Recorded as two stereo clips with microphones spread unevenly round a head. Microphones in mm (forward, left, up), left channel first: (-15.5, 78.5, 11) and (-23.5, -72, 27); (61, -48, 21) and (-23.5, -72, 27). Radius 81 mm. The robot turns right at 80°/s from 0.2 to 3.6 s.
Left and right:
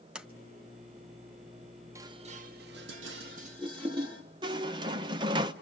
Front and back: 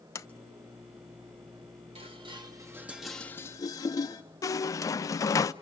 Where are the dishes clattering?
165° right, 1.8 m; by 4.2 s 35° right, 1.8 m.